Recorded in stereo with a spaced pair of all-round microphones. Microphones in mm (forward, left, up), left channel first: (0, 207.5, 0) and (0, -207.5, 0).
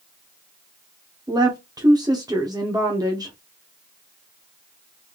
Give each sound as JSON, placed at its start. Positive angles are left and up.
{"t": 1.3, "sound": "a woman speaking", "side_deg": -10, "distance_m": 0.7}